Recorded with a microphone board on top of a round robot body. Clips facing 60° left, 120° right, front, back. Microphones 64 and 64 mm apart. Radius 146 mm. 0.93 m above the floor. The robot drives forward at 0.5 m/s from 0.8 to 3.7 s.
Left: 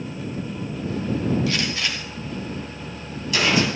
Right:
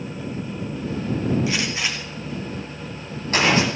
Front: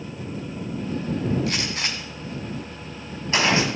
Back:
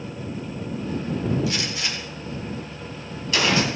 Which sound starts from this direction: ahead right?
A gunshot, at 1.5 s.